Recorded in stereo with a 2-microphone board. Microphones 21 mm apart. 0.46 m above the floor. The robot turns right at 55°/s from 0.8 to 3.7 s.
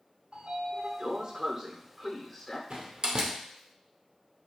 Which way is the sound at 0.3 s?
90° right.